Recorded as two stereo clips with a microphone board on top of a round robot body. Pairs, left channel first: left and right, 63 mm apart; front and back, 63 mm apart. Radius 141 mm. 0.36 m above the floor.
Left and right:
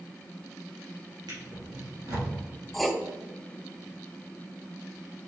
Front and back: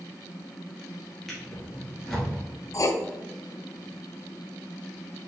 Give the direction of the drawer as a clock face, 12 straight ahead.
3 o'clock.